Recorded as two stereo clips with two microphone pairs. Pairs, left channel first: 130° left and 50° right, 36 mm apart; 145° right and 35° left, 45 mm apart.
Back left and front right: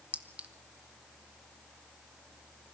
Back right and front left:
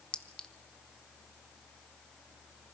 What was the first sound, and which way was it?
A clink, 80° right.